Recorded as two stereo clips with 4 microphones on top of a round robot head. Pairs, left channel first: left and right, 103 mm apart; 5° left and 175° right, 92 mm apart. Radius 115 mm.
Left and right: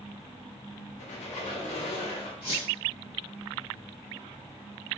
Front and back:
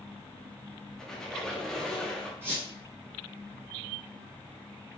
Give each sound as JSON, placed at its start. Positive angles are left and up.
{"t": 1.0, "sound": "a squeak", "azimuth_deg": 90, "distance_m": 0.6}
{"t": 2.4, "sound": "a squeak", "azimuth_deg": 140, "distance_m": 0.8}